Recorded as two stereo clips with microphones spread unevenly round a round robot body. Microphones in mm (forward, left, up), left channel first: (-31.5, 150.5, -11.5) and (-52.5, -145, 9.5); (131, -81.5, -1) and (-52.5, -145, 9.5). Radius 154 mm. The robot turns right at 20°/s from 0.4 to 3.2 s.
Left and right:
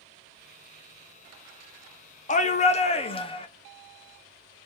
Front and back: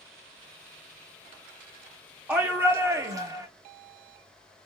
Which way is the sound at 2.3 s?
115° left.